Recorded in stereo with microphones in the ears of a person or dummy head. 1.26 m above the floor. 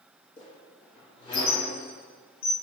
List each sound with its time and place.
0.4 s a squeak: 30° left (ahead or behind), 1.4 m